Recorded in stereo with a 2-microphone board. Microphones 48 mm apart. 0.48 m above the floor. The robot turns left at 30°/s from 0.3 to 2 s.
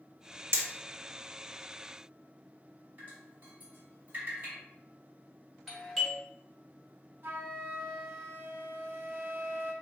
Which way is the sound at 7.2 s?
50° right (ahead or behind).